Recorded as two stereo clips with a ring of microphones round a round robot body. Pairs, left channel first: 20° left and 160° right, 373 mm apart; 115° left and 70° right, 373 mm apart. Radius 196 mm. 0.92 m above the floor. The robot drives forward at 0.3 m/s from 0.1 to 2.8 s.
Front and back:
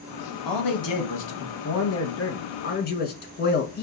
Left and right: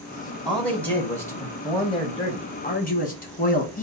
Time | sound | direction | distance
0.5 | a man speaking | 25° left | 1.3 m